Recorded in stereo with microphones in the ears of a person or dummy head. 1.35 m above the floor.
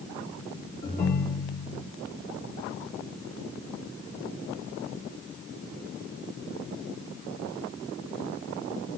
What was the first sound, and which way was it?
A ringtone, 35° left (ahead or behind).